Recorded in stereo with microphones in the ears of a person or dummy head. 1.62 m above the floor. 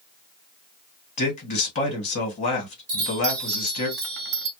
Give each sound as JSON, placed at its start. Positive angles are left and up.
{"t": 1.2, "sound": "a man speaking", "side_deg": 40, "distance_m": 1.4}
{"t": 2.9, "sound": "a chime", "side_deg": -50, "distance_m": 0.6}